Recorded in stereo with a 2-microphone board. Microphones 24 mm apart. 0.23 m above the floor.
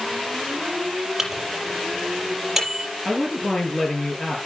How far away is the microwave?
About 5.5 m.